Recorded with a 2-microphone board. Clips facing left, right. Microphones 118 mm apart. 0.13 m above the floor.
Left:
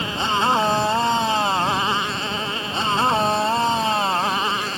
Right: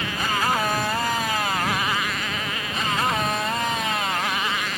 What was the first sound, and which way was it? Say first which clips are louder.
A motorcycle: left 3 dB; 25° left (ahead or behind).